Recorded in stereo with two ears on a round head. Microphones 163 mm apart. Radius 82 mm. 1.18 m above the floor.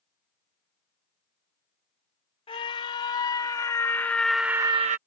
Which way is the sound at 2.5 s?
30° left (ahead or behind).